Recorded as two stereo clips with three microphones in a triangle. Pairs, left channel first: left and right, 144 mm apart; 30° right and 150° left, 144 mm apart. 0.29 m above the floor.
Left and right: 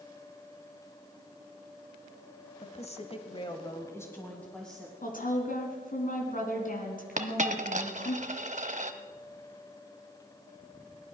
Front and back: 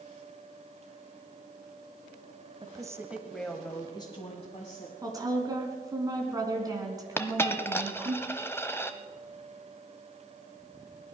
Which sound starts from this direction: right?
A dropped coin, at 7.2 s.